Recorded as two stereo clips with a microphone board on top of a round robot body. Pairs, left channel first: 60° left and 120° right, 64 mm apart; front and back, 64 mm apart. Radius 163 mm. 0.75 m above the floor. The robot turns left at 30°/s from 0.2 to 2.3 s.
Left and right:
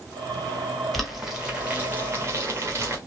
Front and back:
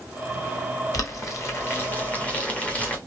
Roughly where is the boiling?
Ahead right.